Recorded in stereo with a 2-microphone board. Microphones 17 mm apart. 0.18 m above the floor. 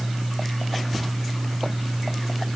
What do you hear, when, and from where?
Only background noise.